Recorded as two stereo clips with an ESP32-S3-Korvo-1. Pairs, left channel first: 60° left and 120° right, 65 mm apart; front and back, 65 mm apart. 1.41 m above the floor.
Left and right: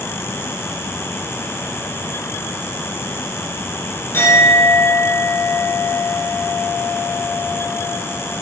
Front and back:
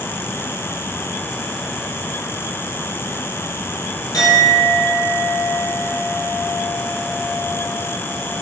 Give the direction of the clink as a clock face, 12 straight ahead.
12 o'clock.